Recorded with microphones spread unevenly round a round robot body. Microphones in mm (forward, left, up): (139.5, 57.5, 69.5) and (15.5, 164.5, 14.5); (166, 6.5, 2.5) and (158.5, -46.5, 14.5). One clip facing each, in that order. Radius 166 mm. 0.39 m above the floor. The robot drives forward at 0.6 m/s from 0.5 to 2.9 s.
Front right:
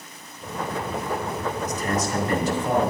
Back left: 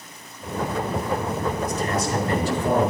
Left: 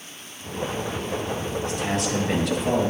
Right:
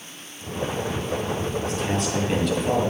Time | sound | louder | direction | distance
1.6 | a man speaking | back left 1 dB, left 2 dB | 80° left | 5 m